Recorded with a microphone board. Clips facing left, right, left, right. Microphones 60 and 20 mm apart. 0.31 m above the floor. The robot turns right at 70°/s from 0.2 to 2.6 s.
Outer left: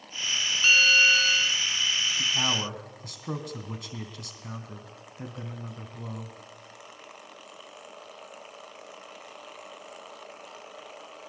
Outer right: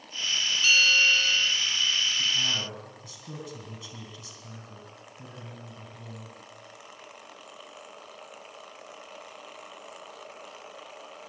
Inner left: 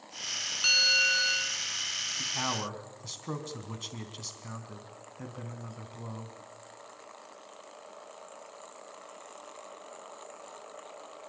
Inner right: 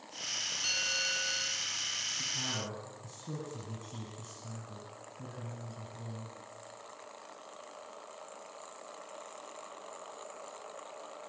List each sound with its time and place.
0.6 s a bell: 35° left, 1.5 m; by 1.6 s 100° left, 1.5 m
2.2 s a man speaking: 55° left (ahead or behind), 3 m; by 6.3 s 65° left (ahead or behind), 3 m